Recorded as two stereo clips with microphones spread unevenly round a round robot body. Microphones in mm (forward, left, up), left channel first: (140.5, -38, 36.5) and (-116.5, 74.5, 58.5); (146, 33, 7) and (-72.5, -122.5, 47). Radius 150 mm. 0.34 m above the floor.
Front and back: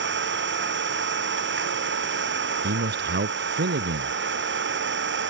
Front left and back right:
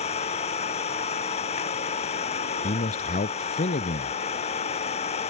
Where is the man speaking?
100° left.